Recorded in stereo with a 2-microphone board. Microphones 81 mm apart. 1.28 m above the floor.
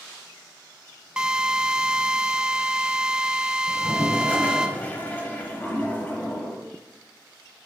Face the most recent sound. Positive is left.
turn(degrees=20)  # may be behind; listen again after turning